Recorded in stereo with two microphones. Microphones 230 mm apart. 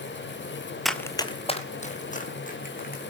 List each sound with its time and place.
0.8 s running footsteps: centre (ahead or behind), 0.8 m; by 3.0 s 40° left (ahead or behind), 3 m